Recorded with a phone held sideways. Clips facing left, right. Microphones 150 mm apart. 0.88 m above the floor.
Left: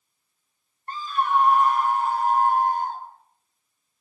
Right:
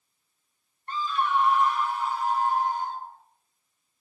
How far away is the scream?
About 1.6 m.